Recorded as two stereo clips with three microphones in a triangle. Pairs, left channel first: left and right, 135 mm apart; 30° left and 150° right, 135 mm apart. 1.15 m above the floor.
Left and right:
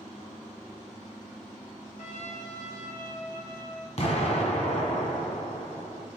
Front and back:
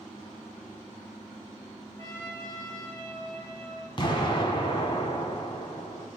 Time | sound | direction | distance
2.0 | a trumpet | 95° left | 2.5 m
4.0 | an explosion | 75° left | 1.6 m